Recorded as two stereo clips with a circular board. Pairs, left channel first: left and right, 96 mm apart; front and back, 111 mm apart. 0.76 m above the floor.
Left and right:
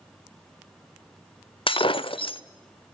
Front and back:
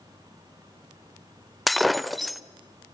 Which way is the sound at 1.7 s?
90° left.